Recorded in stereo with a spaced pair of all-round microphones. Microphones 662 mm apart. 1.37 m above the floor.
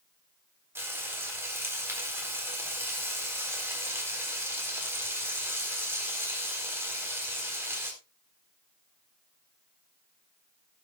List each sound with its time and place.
0.8 s frying: 5° right (ahead or behind), 4 m